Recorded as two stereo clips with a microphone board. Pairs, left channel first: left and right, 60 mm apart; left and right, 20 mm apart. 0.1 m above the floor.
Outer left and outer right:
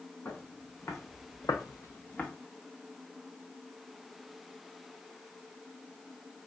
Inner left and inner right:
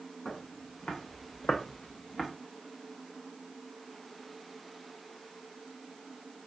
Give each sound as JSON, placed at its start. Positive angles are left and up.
{"t": 0.2, "sound": "footsteps", "side_deg": 45, "distance_m": 2.0}